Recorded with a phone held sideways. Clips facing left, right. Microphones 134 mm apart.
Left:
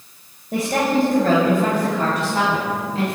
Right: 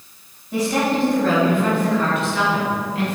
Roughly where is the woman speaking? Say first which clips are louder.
Left 1 dB; left.